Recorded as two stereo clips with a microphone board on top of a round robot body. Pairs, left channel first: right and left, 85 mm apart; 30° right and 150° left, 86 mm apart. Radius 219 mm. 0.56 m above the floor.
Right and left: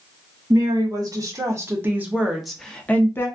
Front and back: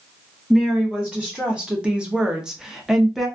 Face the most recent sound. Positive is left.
turn(degrees=-125)